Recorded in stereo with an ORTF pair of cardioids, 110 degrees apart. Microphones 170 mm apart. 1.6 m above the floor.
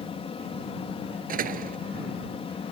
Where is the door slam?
55° right.